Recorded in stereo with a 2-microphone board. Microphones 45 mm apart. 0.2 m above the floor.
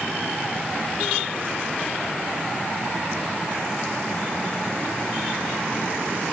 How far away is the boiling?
I don't hear boiling.